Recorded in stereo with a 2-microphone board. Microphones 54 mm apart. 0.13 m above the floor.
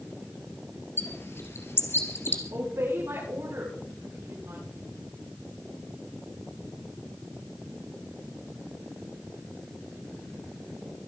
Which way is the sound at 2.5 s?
65° right (ahead or behind).